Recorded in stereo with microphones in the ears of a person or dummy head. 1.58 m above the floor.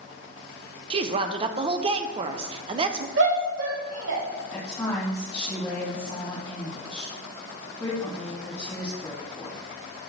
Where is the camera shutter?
No camera shutter in this recording.